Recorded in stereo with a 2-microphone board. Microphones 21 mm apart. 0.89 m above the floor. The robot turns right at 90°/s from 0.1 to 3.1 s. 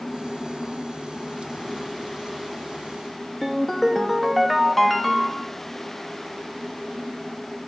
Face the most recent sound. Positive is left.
turn(degrees=0)  # may be behind; listen again after turning